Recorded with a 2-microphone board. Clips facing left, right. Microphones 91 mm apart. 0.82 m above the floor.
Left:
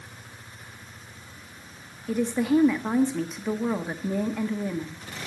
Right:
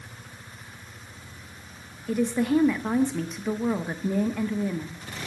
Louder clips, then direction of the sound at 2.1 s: Even; centre (ahead or behind).